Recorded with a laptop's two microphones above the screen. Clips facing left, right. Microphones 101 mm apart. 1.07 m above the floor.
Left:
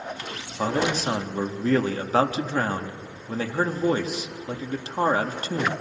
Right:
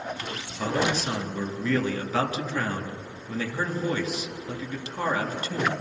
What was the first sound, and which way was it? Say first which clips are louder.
A man speaking: left 2 dB; 40° left (ahead or behind).